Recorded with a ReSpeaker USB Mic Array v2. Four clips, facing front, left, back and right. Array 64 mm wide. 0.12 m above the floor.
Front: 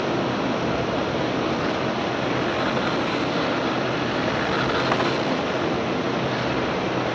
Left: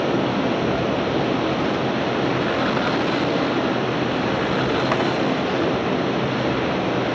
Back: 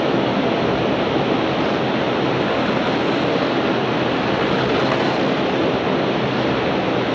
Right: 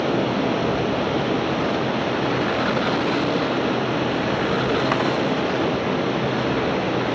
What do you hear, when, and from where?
0.0 s running water: straight behind, 3 m